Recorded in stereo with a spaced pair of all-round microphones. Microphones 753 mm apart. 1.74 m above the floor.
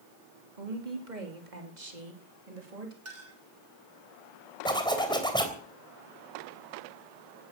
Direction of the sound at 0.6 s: 80° right.